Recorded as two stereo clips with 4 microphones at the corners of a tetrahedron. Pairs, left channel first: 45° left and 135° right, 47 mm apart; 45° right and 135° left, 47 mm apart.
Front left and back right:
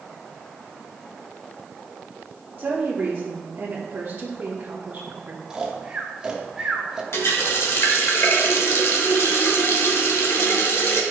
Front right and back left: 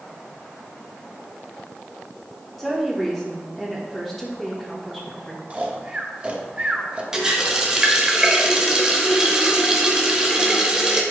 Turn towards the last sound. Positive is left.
turn(degrees=55)